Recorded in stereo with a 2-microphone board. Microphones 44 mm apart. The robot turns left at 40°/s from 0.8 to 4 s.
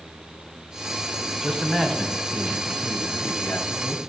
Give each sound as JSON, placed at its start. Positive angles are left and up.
{"t": 1.4, "sound": "a man speaking", "azimuth_deg": -175, "distance_m": 2.0}